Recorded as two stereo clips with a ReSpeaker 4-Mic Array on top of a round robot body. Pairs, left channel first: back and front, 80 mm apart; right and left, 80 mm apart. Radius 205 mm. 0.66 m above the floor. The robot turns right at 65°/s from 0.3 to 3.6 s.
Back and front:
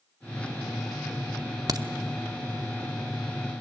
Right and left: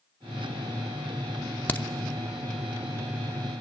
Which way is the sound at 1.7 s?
25° right.